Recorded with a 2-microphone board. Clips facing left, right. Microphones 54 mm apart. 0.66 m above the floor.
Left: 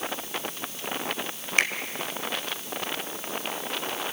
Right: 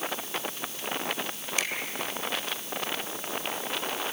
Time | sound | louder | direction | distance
1.6 | a finger snap | left 8 dB | 55° left (ahead or behind) | 1.8 m